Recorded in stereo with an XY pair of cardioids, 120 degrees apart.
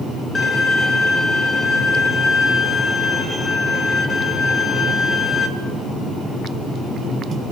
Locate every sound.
0.3 s a violin: 30° left, 2.5 m